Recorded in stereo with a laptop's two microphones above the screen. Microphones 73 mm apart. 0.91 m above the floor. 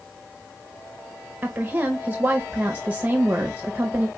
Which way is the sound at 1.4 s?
25° right (ahead or behind).